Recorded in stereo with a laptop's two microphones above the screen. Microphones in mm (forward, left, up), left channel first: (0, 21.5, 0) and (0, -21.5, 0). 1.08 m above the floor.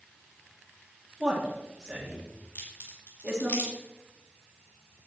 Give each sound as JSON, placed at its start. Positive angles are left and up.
{"t": 1.2, "sound": "a man speaking", "side_deg": -15, "distance_m": 1.8}
{"t": 2.5, "sound": "a crack", "side_deg": 55, "distance_m": 3.0}